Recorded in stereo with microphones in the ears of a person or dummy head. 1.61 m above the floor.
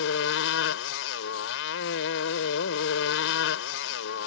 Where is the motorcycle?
75° left (ahead or behind).